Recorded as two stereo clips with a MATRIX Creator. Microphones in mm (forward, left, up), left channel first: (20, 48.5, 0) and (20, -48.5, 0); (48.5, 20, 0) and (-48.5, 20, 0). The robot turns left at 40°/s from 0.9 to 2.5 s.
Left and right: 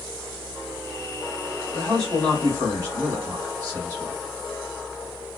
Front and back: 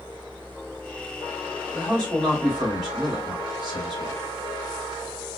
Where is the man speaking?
65° right, 1.9 m; by 4.2 s 95° right, 1.9 m.